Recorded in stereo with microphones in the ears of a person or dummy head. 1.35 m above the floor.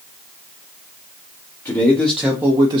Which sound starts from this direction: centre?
A man speaking, at 1.6 s.